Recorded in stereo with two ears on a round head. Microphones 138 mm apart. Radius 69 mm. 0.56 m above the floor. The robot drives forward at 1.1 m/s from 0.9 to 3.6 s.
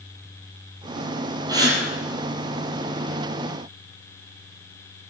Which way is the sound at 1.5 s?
25° right (ahead or behind).